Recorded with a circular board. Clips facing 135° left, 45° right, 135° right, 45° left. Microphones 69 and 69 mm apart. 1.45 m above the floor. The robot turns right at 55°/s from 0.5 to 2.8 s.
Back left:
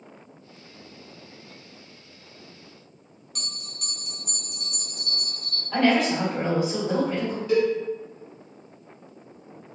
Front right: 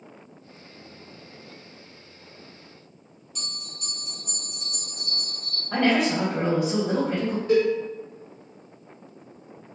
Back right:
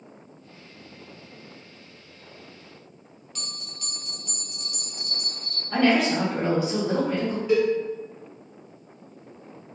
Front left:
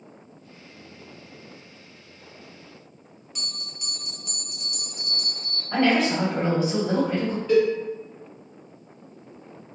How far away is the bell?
About 0.7 m.